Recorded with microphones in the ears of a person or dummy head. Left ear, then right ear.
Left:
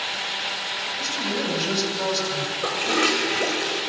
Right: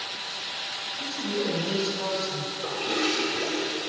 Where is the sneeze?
I don't hear a sneeze.